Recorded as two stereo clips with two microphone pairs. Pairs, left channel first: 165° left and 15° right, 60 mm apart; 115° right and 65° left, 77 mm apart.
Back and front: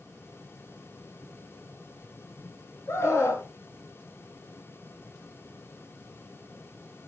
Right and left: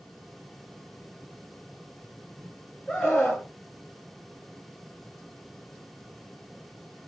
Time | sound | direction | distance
2.9 | a scream | 160° left | 1.3 m